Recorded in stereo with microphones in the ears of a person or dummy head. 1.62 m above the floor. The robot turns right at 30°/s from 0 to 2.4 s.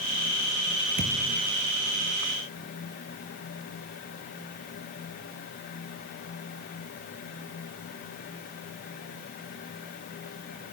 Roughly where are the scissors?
I don't hear scissors.